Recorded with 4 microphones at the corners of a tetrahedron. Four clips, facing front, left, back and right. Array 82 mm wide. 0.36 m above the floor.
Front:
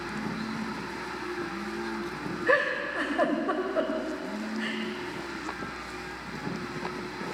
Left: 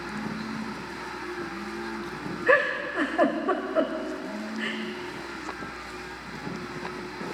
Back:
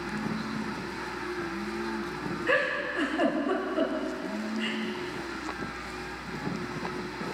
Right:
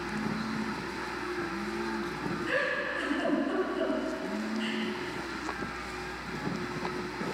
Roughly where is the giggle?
Left.